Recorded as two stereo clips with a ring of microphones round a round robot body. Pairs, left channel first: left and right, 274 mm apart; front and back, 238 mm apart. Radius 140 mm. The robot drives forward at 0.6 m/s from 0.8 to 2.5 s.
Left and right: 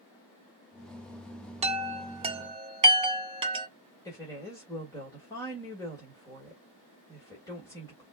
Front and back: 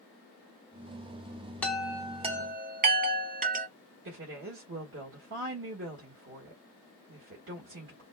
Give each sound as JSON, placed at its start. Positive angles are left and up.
{"t": 1.6, "sound": "a chime", "azimuth_deg": -75, "distance_m": 0.7}
{"t": 4.0, "sound": "a woman speaking", "azimuth_deg": 165, "distance_m": 2.0}